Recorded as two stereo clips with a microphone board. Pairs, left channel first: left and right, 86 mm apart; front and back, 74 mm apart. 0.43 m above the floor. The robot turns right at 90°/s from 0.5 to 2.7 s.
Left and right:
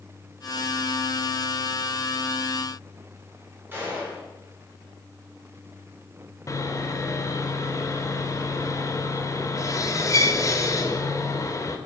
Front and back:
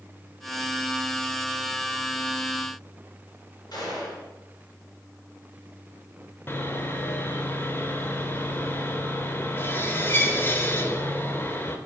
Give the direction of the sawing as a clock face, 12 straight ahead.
10 o'clock.